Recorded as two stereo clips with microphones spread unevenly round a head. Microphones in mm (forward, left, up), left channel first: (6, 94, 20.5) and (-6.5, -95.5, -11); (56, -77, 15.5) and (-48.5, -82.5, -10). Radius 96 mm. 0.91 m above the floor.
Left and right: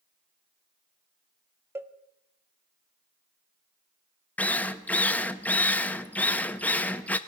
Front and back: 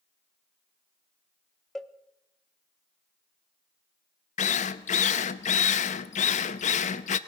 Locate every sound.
1.8 s a cowbell: 110° right, 0.6 m
4.4 s a drill: straight ahead, 0.6 m